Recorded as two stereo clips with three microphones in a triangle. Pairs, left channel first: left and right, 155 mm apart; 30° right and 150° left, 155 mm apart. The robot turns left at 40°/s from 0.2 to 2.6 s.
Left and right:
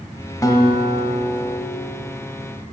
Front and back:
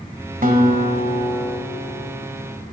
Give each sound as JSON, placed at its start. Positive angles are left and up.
{"t": 0.4, "sound": "a guitar", "azimuth_deg": 155, "distance_m": 1.3}